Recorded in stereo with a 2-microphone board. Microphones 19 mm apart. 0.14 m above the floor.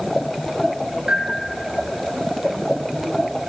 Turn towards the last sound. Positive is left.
turn(degrees=-75)  # may be behind; listen again after turning